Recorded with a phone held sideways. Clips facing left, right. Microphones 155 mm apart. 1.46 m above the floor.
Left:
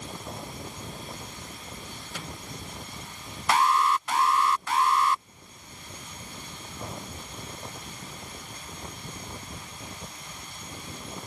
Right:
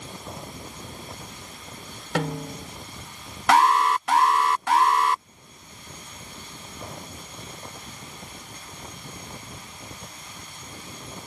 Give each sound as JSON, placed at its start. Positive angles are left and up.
{"t": 2.1, "sound": "a snare drum", "side_deg": -85}
{"t": 3.5, "sound": "an alarm", "side_deg": -75}